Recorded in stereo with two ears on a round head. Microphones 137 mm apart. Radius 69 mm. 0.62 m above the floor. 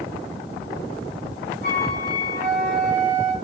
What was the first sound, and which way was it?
A flute, 65° left (ahead or behind).